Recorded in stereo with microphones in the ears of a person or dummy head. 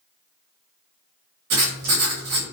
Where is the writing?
70° right (ahead or behind), 1.2 m.